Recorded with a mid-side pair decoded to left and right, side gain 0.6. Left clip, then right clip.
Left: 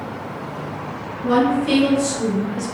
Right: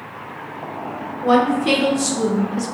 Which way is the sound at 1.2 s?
70° right.